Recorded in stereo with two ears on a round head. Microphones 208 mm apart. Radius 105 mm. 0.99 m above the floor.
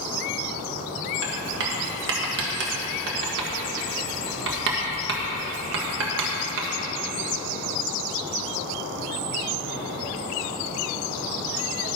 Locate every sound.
1.2 s writing: 60° right (ahead or behind), 1.5 m